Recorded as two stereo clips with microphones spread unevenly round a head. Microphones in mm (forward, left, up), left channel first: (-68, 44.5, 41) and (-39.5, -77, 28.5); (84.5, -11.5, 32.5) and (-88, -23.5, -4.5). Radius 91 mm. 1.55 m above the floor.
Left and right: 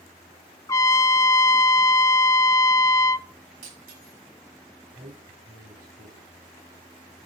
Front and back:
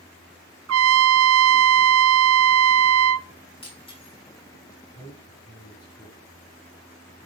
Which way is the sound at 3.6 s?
55° right.